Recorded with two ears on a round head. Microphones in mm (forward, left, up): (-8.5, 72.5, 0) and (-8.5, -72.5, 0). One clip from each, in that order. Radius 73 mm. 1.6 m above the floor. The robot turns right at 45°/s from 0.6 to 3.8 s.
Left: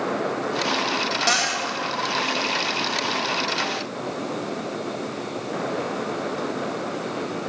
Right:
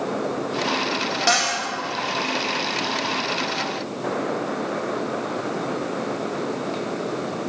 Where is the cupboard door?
5° left (ahead or behind), 1.5 m; by 1.6 s 20° left (ahead or behind), 1.5 m.